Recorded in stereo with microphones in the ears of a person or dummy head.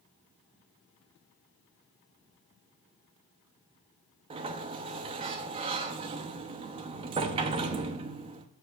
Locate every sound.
4.3 s a sliding door: 30° right (ahead or behind), 0.7 m